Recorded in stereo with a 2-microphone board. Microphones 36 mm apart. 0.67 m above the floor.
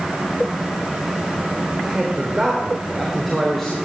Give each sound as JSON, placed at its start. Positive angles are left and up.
{"t": 1.8, "sound": "a man speaking", "side_deg": -10, "distance_m": 3.0}